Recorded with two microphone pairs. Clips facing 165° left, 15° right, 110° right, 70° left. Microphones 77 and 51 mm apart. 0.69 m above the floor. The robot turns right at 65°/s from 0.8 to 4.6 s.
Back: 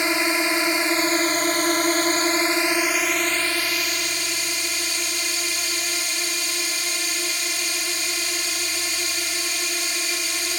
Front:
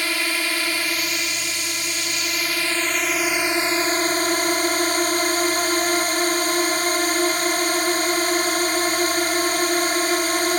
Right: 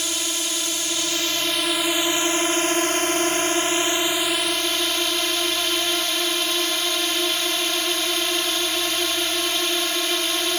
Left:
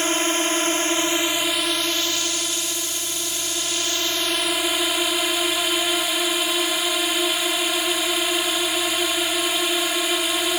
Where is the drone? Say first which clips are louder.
Back 3 dB, left 7 dB; 105° left; by 10.6 s 10° right.